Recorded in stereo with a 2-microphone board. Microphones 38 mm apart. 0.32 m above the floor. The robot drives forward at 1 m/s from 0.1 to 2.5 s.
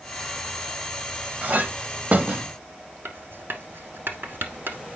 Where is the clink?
40° right (ahead or behind), 0.8 m; by 2.5 s 30° right (ahead or behind), 0.9 m.